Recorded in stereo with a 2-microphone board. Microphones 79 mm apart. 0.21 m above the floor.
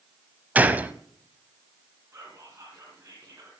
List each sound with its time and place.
0.6 s a gunshot: 20° right (ahead or behind), 0.6 m
2.1 s whispering: 35° right (ahead or behind), 2.5 m